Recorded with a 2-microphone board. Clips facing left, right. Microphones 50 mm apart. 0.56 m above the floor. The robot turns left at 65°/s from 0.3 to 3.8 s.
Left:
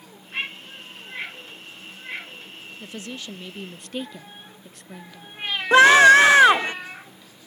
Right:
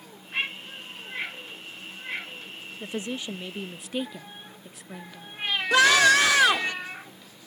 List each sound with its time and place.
2.8 s a woman speaking: 20° right (ahead or behind); by 5.3 s 5° right (ahead or behind)
5.7 s a scream: 35° left (ahead or behind)